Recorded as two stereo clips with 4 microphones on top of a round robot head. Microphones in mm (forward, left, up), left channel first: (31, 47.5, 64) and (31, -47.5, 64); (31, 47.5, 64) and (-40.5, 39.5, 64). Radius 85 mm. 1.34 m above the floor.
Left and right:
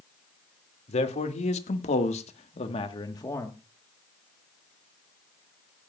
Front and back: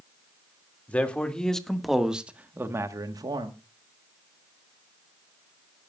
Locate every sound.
0.9 s a man speaking: 80° left, 2.5 m; by 3.6 s 165° left, 1.5 m